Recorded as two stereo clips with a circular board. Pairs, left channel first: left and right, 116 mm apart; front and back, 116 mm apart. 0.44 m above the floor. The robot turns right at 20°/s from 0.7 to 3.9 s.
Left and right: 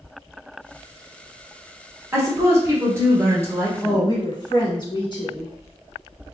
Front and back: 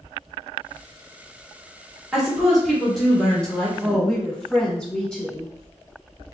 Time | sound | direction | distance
2.1 | a woman speaking | 100° right | 1.3 m
3.8 | a woman speaking | 80° left | 1.3 m